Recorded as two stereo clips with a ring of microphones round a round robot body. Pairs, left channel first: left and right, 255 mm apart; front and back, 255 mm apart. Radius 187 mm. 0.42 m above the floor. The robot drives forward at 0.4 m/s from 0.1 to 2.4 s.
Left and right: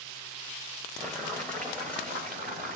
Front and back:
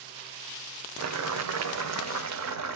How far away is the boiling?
About 1.1 m.